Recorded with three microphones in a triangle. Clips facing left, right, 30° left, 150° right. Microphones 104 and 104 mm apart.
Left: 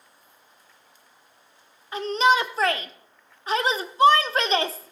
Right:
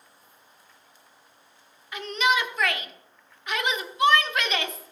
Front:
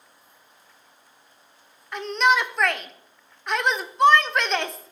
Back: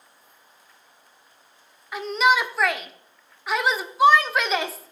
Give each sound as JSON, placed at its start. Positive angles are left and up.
{"t": 1.9, "sound": "a shout", "azimuth_deg": 125, "distance_m": 0.9}